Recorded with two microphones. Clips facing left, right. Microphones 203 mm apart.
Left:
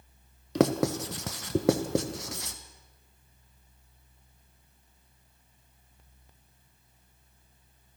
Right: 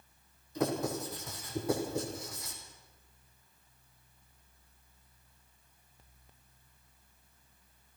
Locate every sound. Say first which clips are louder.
0.6 s writing: left 8 dB; 80° left, 1.5 m